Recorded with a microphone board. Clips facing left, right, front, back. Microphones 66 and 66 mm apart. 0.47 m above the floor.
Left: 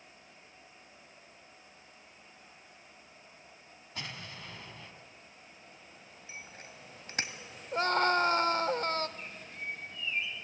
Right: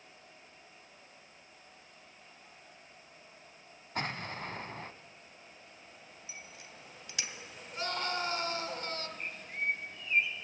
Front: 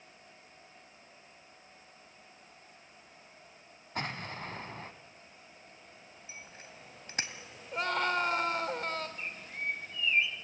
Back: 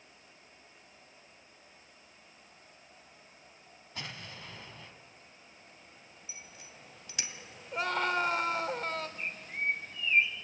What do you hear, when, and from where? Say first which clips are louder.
4.0 s an explosion: right 7 dB, front 7 dB; 45° right, 1.2 m
6.3 s a bicycle bell: left 4 dB, front 3 dB; 40° left, 2 m
7.7 s a scream: left 9 dB, even; 90° left, 1.6 m
9.2 s a bird: right 5 dB, back 3 dB; 125° right, 2 m